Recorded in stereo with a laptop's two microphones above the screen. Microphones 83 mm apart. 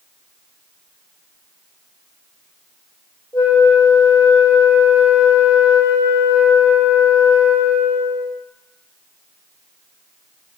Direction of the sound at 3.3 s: 40° left (ahead or behind).